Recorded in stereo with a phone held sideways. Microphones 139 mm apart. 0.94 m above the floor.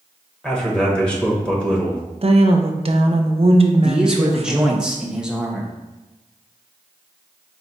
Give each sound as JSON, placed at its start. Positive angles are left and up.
{"t": 0.4, "sound": "a man speaking", "side_deg": 10, "distance_m": 1.0}
{"t": 2.2, "sound": "a woman speaking", "side_deg": -45, "distance_m": 0.6}
{"t": 3.8, "sound": "a man speaking", "side_deg": -5, "distance_m": 0.8}